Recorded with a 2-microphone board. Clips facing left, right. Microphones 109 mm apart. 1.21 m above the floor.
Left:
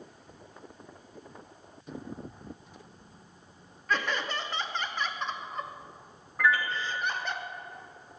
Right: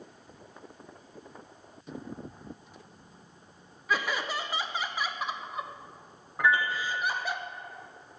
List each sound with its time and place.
3.9 s laughter: 10° right (ahead or behind), 0.6 m
6.4 s a piano: 25° right (ahead or behind), 0.7 m